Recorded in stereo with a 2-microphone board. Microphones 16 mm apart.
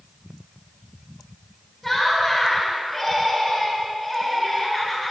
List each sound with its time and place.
1.8 s laughter: centre (ahead or behind), 3.5 m